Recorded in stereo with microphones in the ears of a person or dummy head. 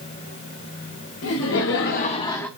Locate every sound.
1.2 s laughter: 65° left (ahead or behind), 1.4 m; by 2.5 s 10° left (ahead or behind), 0.8 m